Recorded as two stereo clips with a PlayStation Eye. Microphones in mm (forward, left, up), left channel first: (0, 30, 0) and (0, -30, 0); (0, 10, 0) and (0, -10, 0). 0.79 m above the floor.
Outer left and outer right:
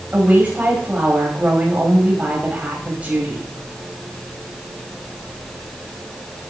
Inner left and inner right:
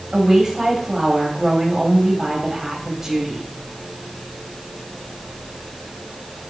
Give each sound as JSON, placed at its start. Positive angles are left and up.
{"t": 0.1, "sound": "a woman speaking", "side_deg": -25, "distance_m": 5.0}